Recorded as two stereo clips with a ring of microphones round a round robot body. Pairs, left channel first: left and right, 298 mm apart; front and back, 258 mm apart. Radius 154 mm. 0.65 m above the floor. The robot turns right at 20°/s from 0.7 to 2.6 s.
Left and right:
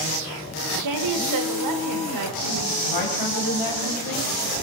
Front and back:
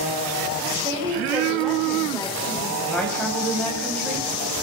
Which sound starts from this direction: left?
A woman speaking, at 2.8 s.